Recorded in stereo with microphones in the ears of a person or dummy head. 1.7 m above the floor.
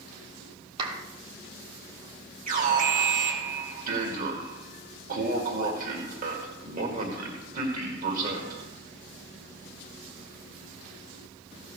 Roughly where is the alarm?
Right.